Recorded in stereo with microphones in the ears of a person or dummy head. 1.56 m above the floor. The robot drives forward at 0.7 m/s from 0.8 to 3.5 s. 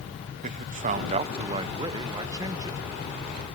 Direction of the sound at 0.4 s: 40° right (ahead or behind).